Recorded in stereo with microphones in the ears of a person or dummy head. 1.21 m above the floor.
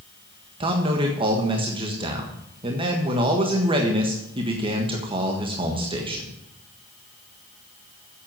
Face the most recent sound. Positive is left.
turn(degrees=-25)  # may be behind; listen again after turning